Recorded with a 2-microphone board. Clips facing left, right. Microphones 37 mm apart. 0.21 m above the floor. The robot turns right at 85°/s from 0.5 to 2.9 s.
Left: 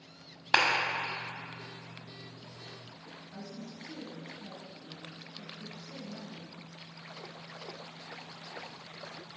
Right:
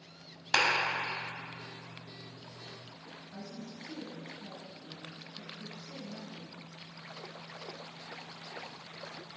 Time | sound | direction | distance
0.5 | a clap | 25° left (ahead or behind) | 0.8 m
3.3 | a woman speaking | 10° right (ahead or behind) | 1.6 m